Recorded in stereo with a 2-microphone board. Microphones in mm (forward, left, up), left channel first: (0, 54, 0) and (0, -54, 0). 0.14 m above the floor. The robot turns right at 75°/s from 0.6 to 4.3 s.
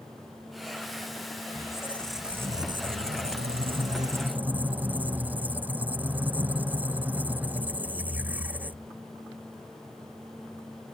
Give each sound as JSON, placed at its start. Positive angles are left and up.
{"t": 1.6, "sound": "a squeak", "azimuth_deg": 140}